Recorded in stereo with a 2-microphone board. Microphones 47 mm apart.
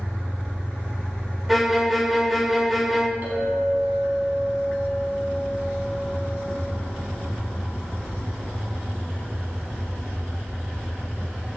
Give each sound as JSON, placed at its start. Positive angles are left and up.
{"t": 1.5, "sound": "a violin", "side_deg": -5, "distance_m": 0.9}
{"t": 3.2, "sound": "a clink", "side_deg": -45, "distance_m": 4.0}